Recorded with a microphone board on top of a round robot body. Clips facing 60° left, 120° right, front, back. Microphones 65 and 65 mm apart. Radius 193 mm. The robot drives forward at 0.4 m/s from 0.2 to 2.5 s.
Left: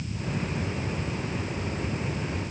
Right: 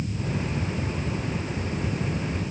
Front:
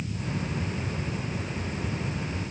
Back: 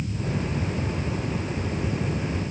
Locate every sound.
Only background noise.